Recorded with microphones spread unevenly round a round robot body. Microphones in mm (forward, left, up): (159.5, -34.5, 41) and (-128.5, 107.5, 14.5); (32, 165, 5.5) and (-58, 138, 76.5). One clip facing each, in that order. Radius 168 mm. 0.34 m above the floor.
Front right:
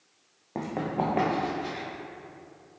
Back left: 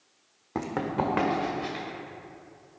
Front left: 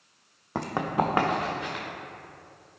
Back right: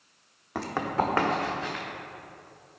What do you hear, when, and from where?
0.6 s running footsteps: 90° left, 1.3 m; by 1.8 s 95° left, 3 m